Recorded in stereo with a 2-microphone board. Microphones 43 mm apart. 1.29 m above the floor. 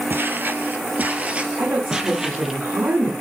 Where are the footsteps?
50° right (ahead or behind), 1.9 m; by 2.6 s 5° right (ahead or behind), 2.5 m.